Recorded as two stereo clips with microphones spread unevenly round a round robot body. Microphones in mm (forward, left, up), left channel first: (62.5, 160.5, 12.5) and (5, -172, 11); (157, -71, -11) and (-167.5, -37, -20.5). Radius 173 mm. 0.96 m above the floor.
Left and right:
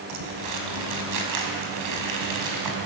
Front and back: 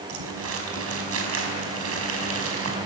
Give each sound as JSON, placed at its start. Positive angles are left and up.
{"t": 0.1, "sound": "crumpling", "azimuth_deg": -140, "distance_m": 5.0}